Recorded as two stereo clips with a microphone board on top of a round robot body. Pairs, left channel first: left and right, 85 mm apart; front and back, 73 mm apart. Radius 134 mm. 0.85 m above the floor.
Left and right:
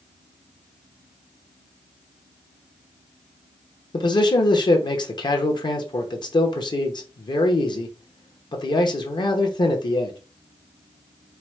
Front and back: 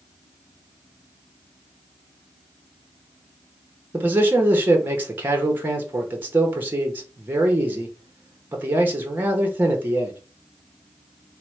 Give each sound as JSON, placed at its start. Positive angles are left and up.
{"t": 3.9, "sound": "a man speaking", "azimuth_deg": 120, "distance_m": 1.0}